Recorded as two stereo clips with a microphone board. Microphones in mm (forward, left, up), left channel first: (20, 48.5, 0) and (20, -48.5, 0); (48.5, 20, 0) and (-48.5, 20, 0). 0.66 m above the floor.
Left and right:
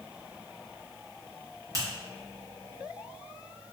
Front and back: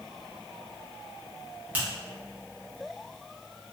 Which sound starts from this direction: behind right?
A finger snap, at 1.7 s.